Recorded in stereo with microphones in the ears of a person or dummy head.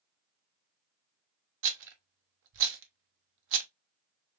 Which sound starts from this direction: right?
A rattle, at 1.6 s.